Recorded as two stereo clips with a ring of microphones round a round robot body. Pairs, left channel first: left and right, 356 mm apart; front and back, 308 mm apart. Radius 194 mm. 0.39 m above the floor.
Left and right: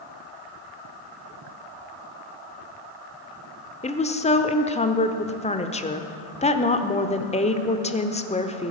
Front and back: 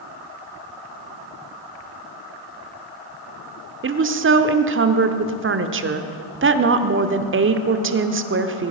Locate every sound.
3.8 s a woman speaking: 155° left, 1.0 m